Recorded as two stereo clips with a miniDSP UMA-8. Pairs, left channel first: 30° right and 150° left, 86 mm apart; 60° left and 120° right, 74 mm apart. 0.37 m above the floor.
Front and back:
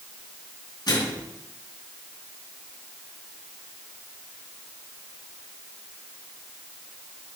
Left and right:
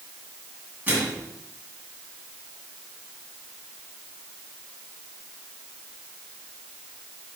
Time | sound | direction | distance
0.9 | a microwave | 60° right | 2.5 m